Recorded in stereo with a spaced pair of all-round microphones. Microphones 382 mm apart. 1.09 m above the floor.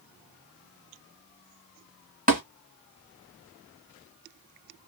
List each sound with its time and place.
2.3 s tapping: 20° right (ahead or behind), 1.8 m